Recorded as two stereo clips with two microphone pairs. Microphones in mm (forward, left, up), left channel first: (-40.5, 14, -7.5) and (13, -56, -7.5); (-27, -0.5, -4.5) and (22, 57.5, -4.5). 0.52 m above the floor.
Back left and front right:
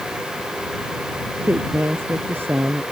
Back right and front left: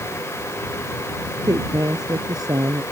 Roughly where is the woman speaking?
Ahead.